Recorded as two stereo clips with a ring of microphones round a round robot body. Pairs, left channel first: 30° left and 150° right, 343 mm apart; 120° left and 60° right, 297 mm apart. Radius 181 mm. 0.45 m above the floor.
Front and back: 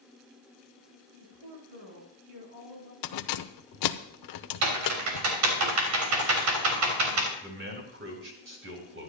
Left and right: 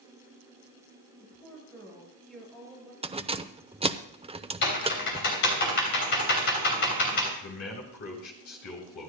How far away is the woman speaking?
About 5.5 m.